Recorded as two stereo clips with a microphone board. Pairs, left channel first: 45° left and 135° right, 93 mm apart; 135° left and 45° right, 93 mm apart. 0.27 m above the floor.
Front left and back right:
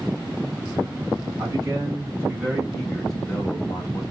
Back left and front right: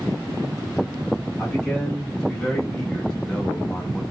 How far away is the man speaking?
About 1.9 m.